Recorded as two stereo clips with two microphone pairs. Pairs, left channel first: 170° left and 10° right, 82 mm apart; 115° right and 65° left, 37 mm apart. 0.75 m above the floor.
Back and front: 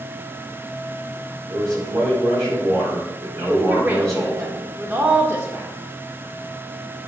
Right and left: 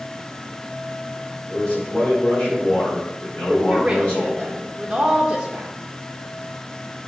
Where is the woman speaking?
15° left, 1.0 m.